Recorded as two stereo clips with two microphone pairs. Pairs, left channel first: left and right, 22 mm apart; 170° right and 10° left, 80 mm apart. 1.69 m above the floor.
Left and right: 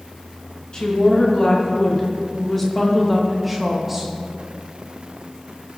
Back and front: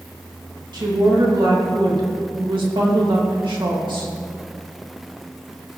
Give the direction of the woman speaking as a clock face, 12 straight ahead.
11 o'clock.